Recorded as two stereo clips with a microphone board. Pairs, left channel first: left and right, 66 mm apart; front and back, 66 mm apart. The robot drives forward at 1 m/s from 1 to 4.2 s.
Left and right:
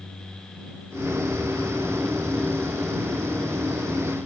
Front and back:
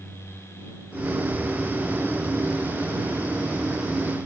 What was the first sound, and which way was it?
Only background noise.